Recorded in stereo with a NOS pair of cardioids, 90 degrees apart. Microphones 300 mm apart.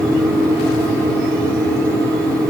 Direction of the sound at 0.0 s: 10° right.